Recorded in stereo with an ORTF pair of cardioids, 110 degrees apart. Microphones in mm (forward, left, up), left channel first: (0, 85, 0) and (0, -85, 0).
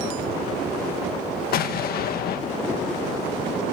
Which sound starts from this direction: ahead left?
An explosion, at 1.5 s.